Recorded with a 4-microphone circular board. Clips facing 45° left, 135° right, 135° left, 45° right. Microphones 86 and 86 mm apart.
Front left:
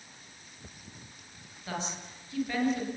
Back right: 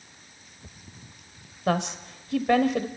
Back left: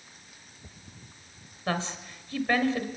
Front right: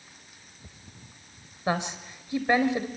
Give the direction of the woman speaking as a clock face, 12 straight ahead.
4 o'clock.